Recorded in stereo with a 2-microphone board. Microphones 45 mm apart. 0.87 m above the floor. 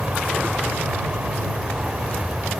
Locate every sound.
0.0 s an aircraft: 35° right (ahead or behind)